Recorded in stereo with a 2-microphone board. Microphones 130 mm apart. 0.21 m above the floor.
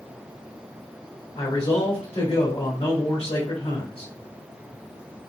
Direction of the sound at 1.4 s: 45° left (ahead or behind).